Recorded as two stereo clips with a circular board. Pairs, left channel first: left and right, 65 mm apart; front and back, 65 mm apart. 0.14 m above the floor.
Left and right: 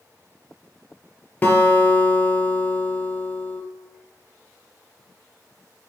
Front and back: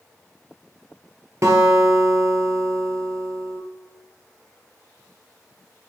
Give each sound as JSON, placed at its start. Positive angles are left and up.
{"t": 1.4, "sound": "a guitar", "azimuth_deg": 150, "distance_m": 1.4}